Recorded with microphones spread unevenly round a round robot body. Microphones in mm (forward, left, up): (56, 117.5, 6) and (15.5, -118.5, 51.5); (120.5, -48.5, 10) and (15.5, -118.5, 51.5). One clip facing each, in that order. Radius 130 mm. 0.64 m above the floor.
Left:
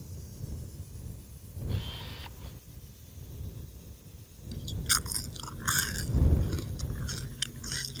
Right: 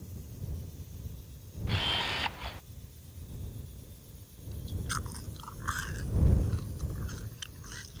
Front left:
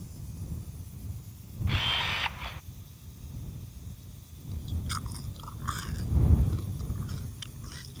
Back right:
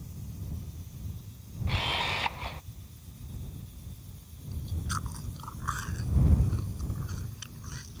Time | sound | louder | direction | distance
1.7 | a camera shutter | right 4 dB, back right 2 dB | 95° right | ?
4.5 | chewing | left 2 dB, back right 1 dB | 120° left | ?